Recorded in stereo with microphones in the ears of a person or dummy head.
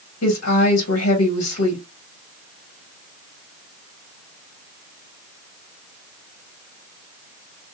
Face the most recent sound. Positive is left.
turn(degrees=85)